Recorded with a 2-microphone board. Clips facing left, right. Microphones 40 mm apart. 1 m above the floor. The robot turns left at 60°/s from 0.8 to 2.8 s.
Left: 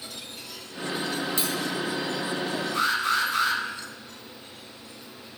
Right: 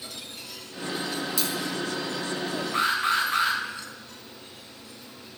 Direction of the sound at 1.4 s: 35° left (ahead or behind).